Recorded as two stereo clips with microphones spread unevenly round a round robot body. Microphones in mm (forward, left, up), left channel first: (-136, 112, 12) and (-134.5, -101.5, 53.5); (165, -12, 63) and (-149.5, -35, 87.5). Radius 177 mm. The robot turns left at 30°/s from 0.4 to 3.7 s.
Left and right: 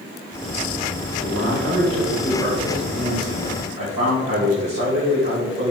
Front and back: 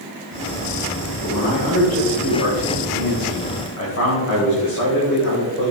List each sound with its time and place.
1.2 s a man speaking: 35° left, 2.5 m; by 5.7 s 40° right, 2.5 m